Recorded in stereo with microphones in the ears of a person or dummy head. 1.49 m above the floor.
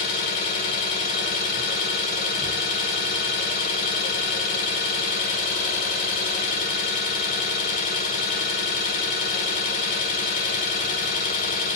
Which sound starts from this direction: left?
An engine running, at 0.0 s.